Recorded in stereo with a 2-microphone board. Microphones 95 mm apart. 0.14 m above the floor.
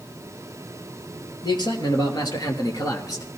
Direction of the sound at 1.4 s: 55° left (ahead or behind).